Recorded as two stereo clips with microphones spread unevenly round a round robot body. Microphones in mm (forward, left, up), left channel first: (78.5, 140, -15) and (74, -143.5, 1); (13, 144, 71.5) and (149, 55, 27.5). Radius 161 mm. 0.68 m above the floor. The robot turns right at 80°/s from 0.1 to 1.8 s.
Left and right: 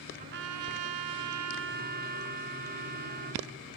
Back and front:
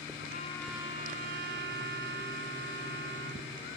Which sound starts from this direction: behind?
A trumpet, at 0.2 s.